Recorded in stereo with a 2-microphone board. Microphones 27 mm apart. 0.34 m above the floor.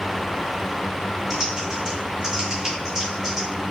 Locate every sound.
1.3 s typing on a keyboard: 20° right (ahead or behind), 1.3 m